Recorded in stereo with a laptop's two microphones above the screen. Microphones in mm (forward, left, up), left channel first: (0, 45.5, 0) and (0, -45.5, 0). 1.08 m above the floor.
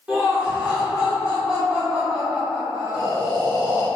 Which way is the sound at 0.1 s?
10° right (ahead or behind).